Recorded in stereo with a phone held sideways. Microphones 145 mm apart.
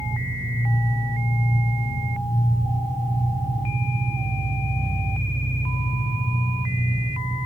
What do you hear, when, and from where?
0.0 s an engine running: 35° right (ahead or behind), 6 m